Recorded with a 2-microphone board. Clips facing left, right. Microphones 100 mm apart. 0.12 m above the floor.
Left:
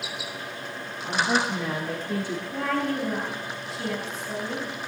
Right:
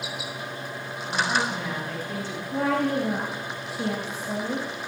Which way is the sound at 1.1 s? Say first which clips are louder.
Left 1 dB; 15° left (ahead or behind).